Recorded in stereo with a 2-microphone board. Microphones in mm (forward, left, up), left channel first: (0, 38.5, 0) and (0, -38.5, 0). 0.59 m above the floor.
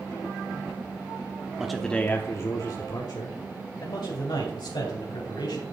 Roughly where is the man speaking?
Centre.